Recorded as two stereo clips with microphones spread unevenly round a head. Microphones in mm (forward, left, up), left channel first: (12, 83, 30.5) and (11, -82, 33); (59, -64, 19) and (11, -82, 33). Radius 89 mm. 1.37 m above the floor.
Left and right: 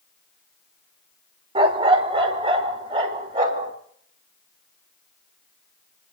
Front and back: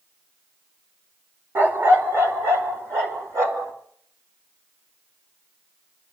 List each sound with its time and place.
1.6 s a dog barking: 145° right, 1.5 m; by 3.7 s 155° right, 4 m